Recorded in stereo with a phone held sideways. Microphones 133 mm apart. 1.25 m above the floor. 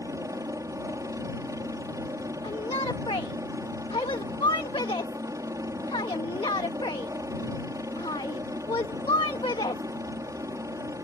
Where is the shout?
45° left (ahead or behind).